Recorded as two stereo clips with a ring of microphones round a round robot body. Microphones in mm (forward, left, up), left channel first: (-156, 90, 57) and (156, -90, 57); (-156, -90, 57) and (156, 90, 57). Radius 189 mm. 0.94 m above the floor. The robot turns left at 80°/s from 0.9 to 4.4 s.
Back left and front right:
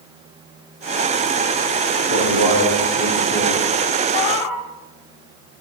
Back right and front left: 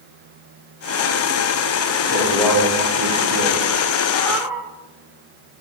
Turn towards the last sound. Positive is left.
turn(degrees=115)